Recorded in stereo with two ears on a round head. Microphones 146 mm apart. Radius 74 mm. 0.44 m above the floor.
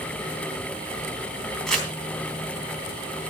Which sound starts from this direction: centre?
Crumpling, at 1.7 s.